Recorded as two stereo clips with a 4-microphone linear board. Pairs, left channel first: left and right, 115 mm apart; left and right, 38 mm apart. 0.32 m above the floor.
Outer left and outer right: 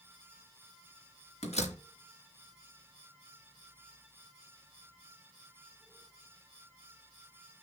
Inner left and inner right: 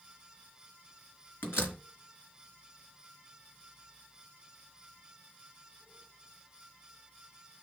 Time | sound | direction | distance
1.4 | a door slam | 70° left (ahead or behind) | 3.5 m